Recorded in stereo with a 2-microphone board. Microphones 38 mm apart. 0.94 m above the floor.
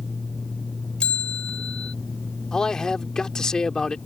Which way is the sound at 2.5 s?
20° left (ahead or behind).